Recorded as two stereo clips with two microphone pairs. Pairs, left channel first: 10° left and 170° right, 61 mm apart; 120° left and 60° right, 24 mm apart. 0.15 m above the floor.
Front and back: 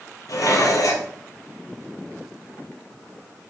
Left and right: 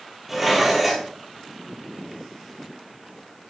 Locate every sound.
0.3 s dishes clattering: 20° left, 2 m